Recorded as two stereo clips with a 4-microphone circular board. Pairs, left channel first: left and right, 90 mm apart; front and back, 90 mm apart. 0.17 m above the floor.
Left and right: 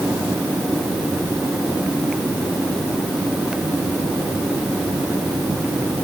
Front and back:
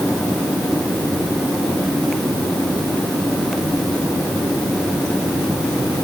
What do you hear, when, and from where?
Only background noise.